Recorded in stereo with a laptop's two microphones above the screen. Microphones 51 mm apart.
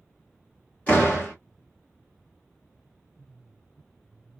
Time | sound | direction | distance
0.9 | a door slam | 25° left (ahead or behind) | 1.1 m